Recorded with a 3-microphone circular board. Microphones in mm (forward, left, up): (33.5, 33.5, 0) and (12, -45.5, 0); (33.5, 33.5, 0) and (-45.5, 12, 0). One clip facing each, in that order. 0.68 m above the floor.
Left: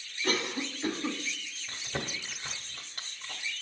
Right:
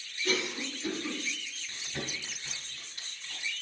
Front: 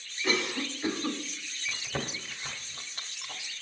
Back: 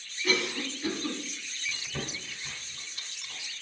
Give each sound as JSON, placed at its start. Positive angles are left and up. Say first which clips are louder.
{"t": 0.2, "sound": "a cough", "louder": "left 1 dB, even", "azimuth_deg": 60, "distance_m": 1.2}
{"t": 1.7, "sound": "chewing", "louder": "left 3 dB, front 3 dB", "azimuth_deg": 45, "distance_m": 0.9}